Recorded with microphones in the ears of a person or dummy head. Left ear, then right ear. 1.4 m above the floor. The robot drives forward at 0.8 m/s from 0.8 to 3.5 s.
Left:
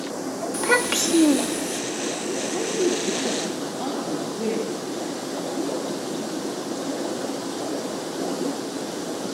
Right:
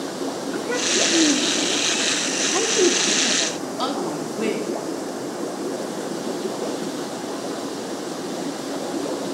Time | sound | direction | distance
0.5 | a child speaking | 60° left (ahead or behind) | 1.2 m
2.4 | a woman speaking | 45° right (ahead or behind) | 4 m